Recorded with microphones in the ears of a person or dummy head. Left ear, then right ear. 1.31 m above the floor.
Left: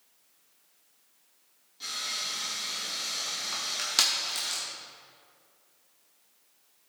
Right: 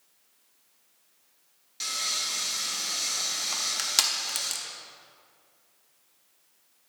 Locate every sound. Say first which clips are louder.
1.8 s sawing: right 4 dB; 70° right (ahead or behind), 1.6 m
3.5 s crushing: even; 20° right (ahead or behind), 0.7 m